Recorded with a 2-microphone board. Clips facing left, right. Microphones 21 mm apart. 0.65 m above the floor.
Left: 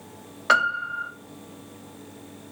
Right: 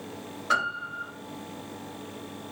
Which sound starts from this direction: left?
A piano, at 0.5 s.